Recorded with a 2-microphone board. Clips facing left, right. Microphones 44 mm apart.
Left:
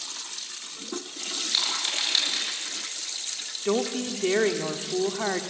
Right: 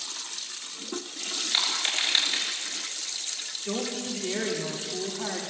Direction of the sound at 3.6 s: 40° left (ahead or behind).